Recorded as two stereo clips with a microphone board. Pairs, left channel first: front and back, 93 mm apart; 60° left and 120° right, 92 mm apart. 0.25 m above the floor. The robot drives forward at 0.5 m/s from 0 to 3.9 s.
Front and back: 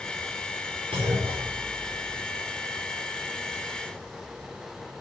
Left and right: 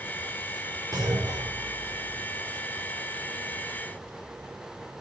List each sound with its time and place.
0.9 s a clunk: 160° right, 5 m; by 2.2 s 165° right, 5.5 m